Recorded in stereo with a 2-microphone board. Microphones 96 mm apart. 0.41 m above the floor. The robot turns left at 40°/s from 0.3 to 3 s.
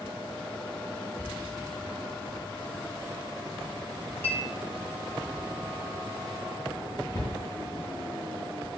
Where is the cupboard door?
30° left (ahead or behind), 1.9 m.